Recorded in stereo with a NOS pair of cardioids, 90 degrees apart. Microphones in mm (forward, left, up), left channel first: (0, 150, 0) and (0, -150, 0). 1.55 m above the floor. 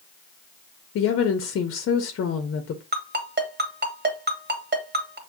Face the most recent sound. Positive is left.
turn(degrees=-35)